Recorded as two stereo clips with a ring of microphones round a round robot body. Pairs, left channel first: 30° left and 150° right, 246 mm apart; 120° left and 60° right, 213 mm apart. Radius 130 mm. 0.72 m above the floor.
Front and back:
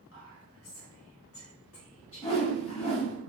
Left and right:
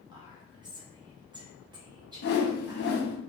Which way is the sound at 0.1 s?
10° left.